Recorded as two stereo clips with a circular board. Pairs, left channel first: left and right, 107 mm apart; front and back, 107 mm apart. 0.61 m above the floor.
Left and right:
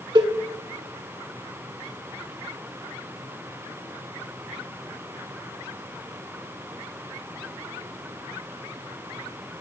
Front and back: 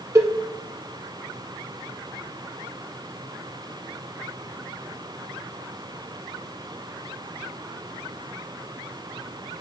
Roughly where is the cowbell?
Behind right.